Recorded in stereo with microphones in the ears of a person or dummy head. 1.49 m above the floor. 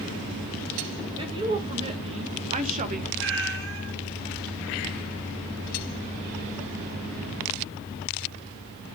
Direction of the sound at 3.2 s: 70° right (ahead or behind).